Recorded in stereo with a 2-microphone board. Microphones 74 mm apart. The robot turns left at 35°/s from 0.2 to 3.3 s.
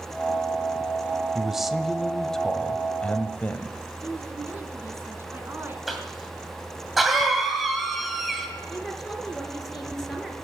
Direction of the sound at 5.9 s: Centre (ahead or behind).